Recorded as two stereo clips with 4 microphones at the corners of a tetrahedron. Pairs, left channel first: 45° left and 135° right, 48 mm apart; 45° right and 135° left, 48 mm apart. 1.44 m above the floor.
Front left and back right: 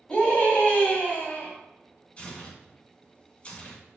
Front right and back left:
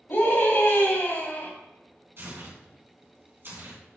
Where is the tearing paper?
105° left, 2.5 m.